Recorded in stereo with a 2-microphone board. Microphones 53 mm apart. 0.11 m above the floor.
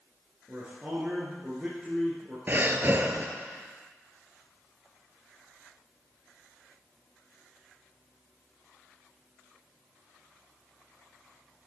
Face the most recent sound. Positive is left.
turn(degrees=-40)  # may be behind; listen again after turning